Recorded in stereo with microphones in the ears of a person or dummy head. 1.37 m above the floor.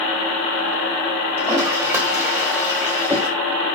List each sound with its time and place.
1.4 s a toilet flushing: 15° right (ahead or behind), 2.5 m